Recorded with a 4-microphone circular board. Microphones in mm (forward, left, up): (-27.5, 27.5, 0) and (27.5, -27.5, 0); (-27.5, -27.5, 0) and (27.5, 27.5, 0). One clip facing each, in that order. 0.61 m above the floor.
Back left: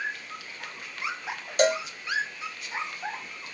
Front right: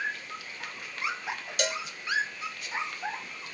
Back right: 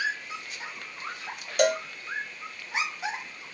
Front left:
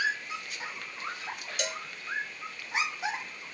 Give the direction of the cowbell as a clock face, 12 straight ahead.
6 o'clock.